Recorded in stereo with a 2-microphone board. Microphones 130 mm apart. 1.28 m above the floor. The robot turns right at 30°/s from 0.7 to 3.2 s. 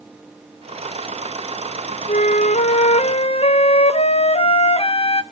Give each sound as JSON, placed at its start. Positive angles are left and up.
{"t": 2.1, "sound": "a flute", "azimuth_deg": 90, "distance_m": 0.6}